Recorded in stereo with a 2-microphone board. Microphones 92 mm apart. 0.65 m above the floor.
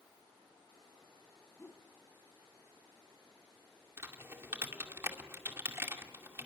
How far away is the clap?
I don't hear a clap.